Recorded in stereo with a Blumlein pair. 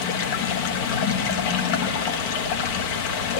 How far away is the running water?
About 1.3 m.